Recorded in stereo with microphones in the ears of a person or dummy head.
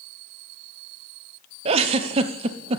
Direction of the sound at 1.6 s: 35° right (ahead or behind).